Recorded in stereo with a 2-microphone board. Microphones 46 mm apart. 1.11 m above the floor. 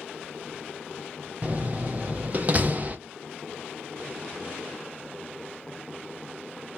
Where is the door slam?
35° right (ahead or behind), 1.0 m.